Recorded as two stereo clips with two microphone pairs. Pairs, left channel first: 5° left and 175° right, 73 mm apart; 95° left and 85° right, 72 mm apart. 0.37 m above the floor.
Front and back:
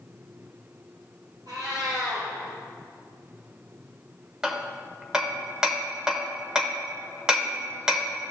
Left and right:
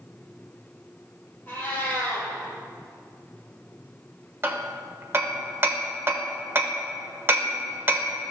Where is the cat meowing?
160° left, 3.5 m.